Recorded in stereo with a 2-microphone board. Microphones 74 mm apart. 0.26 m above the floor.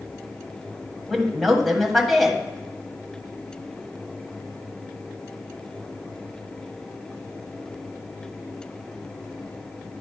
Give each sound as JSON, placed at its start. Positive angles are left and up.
{"t": 1.1, "sound": "a woman speaking", "side_deg": 0, "distance_m": 1.3}